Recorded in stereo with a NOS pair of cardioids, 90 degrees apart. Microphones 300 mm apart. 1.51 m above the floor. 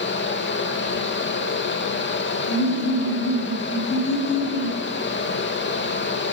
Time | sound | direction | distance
0.0 | a fan | 40° left | 2.5 m
2.5 | laughter | 55° left | 9.5 m